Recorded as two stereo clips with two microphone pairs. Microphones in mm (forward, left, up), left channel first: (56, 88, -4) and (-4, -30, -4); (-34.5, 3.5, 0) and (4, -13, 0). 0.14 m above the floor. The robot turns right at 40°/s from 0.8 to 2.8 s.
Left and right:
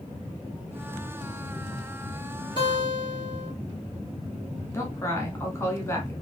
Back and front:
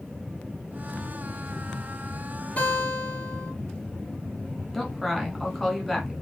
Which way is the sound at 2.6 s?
160° right.